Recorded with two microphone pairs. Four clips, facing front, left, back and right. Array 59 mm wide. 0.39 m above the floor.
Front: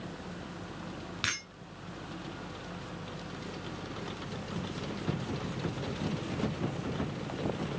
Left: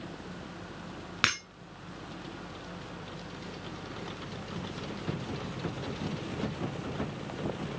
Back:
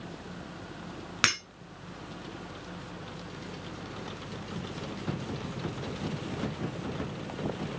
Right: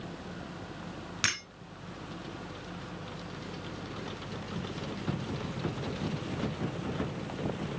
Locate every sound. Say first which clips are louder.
1.2 s breaking glass: left 4 dB, back 7 dB; 140° left, 3.5 m